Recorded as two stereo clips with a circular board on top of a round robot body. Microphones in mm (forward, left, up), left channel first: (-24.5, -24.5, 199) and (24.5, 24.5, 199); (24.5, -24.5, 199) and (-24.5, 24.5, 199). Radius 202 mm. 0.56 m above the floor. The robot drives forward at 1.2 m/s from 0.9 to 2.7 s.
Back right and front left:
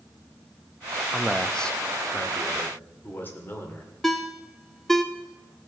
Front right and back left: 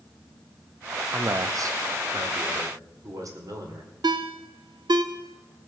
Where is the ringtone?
140° left, 0.6 m.